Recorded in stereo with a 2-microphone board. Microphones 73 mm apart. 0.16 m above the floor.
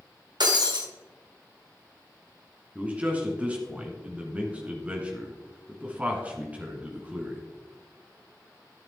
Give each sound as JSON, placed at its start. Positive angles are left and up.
{"t": 0.4, "sound": "breaking glass", "side_deg": -75, "distance_m": 2.5}
{"t": 2.8, "sound": "a man speaking", "side_deg": -20, "distance_m": 2.0}